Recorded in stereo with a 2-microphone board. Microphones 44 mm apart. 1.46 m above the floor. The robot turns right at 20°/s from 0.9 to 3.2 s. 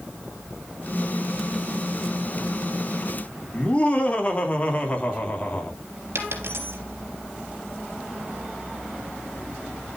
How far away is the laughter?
About 3 m.